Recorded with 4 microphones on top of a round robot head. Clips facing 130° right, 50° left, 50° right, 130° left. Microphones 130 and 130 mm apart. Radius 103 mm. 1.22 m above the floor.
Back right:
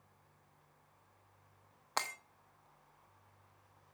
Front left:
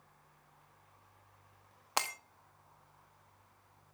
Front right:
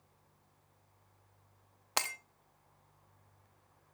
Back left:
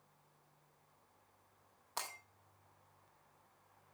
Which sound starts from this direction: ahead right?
Breaking glass, at 2.0 s.